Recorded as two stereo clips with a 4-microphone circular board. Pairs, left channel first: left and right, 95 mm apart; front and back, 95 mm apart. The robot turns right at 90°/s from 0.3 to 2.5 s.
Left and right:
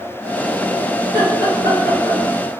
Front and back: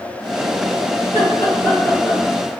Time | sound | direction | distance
1.0 | laughter | 10° right | 1.8 m